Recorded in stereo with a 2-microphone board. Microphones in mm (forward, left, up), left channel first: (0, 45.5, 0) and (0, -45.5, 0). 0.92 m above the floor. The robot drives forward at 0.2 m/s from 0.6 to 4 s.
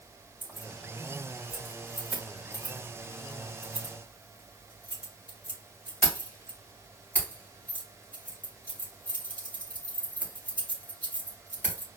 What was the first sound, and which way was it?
Keys jangling, 20° left (ahead or behind).